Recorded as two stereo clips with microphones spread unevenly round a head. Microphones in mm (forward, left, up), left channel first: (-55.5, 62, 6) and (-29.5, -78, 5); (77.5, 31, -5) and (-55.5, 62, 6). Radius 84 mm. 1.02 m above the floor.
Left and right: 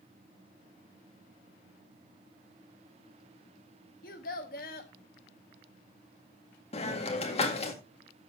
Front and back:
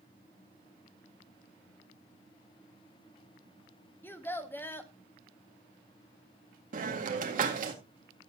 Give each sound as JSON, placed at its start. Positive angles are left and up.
{"t": 4.0, "sound": "a child speaking", "azimuth_deg": 60, "distance_m": 1.4}
{"t": 6.7, "sound": "a hiss", "azimuth_deg": 145, "distance_m": 1.9}